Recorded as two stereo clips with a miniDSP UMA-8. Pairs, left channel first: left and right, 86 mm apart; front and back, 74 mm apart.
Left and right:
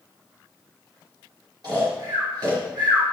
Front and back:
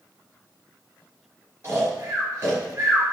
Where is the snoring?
125° right, 4.5 m.